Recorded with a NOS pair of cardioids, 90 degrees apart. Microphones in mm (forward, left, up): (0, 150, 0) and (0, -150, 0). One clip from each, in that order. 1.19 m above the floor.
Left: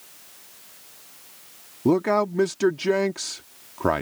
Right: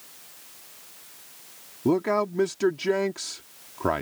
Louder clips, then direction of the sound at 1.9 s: Left 3 dB; 20° left.